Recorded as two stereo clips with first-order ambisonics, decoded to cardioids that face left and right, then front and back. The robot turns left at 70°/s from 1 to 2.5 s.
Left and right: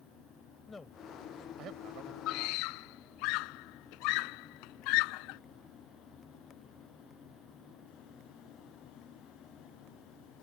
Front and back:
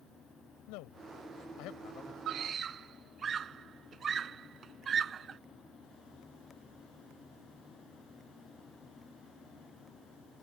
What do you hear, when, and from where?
0.7 s a man speaking: 10° left; by 2.2 s 70° right
2.3 s a scream: 130° left; by 5.4 s 115° left